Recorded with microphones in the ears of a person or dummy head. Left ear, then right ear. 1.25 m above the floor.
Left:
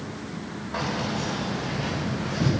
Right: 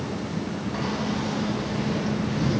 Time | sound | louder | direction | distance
0.7 | keys jangling | left 2 dB | 35° left (ahead or behind) | 5 m